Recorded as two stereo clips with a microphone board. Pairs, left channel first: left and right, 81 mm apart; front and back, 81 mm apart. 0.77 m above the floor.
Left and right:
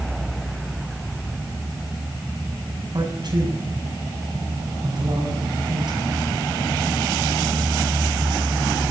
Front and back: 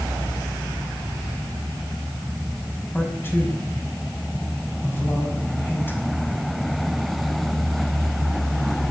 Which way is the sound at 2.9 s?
60° right.